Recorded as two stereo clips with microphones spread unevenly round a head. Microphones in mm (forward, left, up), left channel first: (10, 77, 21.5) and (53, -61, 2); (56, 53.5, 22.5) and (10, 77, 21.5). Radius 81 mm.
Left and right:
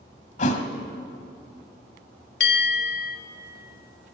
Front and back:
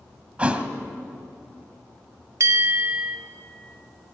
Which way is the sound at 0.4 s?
90° left.